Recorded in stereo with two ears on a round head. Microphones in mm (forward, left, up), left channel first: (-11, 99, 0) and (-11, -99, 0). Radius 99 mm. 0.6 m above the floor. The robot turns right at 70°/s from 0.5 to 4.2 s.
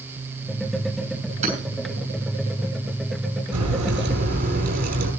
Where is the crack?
90° right, 8 m; by 5.1 s 40° right, 8 m.